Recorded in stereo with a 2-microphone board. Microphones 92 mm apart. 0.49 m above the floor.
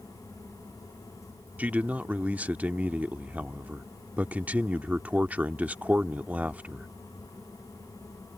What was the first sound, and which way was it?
A man speaking, 15° right (ahead or behind).